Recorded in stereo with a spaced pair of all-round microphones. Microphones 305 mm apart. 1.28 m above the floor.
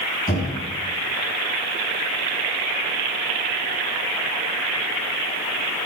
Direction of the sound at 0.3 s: 25° left (ahead or behind).